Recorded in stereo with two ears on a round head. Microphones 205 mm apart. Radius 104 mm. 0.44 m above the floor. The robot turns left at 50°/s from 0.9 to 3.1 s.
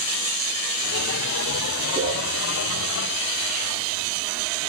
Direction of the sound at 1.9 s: 25° right (ahead or behind).